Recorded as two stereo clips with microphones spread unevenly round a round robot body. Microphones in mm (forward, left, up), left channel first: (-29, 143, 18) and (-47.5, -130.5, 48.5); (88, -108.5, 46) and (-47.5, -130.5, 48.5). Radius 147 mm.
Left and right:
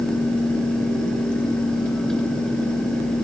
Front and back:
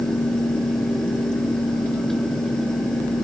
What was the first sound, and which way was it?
Only background noise.